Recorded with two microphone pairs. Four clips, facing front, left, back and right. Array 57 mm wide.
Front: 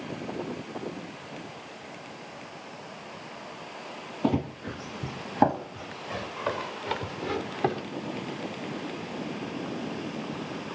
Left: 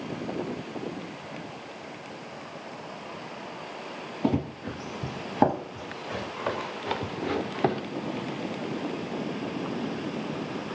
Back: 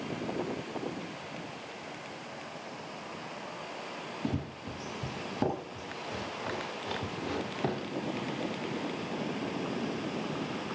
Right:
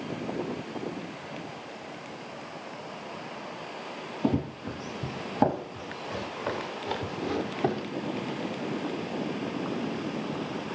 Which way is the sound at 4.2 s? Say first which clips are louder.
Left 1 dB, front 10 dB; 30° left.